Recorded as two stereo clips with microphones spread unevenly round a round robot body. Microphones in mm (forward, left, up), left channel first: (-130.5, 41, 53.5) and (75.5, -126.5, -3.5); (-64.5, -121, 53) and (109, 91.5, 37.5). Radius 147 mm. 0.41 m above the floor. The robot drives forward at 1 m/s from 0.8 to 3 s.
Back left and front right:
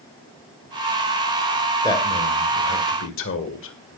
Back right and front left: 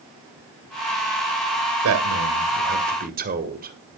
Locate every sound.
1.8 s a man speaking: 55° left, 2 m; by 3.8 s 95° left, 1.9 m